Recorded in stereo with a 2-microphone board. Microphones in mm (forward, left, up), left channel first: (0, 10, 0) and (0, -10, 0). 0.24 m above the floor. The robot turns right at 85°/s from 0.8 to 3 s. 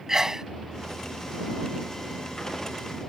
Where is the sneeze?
30° right (ahead or behind).